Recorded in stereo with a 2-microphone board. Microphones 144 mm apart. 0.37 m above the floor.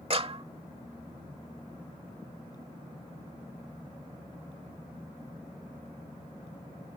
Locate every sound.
0.1 s a clap: 45° right (ahead or behind)